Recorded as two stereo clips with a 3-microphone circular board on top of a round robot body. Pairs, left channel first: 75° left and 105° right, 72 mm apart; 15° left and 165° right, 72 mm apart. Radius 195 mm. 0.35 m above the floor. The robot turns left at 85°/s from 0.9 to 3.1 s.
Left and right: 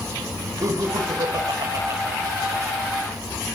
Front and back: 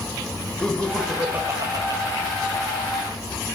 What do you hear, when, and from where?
0.6 s laughter: 60° right, 3 m; by 2.0 s 155° right, 3 m